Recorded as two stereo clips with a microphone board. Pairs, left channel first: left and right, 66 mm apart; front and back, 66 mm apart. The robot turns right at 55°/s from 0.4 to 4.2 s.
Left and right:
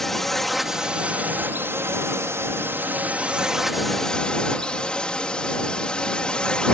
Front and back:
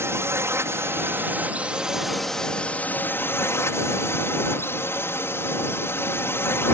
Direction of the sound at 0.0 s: 175° left.